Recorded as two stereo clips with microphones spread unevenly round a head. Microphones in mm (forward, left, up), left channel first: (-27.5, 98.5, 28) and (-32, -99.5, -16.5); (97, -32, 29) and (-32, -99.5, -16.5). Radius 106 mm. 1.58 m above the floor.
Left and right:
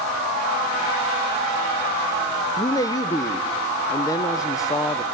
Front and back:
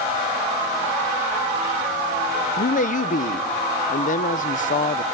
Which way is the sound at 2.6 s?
20° left.